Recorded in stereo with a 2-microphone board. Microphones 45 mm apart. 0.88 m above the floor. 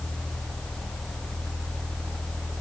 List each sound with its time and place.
Only background noise.